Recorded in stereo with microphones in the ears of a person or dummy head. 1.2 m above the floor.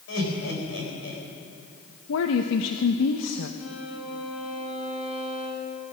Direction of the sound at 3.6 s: 85° left.